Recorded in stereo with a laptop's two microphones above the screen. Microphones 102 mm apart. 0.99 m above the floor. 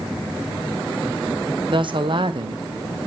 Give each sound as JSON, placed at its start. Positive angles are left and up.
{"t": 1.7, "sound": "a woman speaking", "side_deg": -55, "distance_m": 0.7}